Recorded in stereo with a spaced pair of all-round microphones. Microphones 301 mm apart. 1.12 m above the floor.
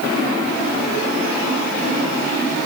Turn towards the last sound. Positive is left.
No sound to turn to.